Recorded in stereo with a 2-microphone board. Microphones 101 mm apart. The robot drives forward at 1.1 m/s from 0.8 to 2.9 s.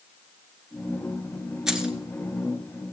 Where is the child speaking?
I don't hear a child speaking.